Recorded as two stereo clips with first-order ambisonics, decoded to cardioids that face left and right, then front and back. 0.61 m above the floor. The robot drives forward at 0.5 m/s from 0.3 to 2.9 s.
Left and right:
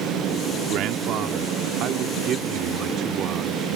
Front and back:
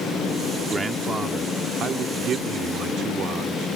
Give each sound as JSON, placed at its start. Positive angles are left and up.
{"t": 0.7, "sound": "a man speaking", "azimuth_deg": -100}